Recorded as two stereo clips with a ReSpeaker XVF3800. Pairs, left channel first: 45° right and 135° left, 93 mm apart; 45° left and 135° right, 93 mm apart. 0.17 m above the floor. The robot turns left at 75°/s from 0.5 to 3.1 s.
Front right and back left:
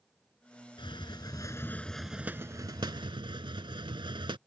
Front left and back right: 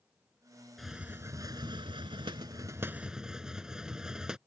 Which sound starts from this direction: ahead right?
A hiss, at 0.8 s.